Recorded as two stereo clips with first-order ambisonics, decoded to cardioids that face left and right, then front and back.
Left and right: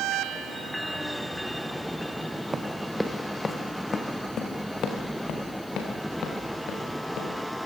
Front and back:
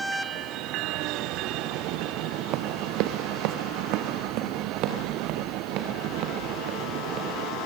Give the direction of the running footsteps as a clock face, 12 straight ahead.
5 o'clock.